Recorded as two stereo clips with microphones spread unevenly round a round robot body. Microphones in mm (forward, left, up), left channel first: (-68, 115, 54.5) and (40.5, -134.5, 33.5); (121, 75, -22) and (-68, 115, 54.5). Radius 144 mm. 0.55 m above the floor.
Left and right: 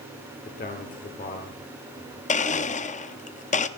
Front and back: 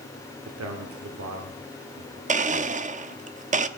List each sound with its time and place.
0.5 s a man speaking: 170° left, 2 m
2.3 s a blender: 115° left, 0.9 m